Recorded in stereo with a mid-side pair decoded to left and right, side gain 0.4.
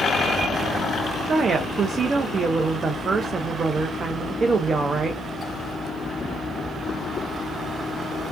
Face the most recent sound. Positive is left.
turn(degrees=-50)